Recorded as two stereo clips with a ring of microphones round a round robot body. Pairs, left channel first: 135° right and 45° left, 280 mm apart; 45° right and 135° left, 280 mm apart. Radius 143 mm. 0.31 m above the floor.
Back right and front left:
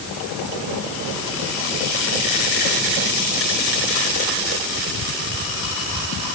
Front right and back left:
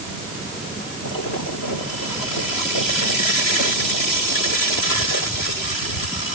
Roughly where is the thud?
No thud in this recording.